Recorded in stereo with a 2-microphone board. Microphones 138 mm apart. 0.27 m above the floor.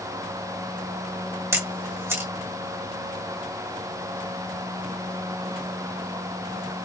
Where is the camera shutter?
20° right (ahead or behind), 1.4 m.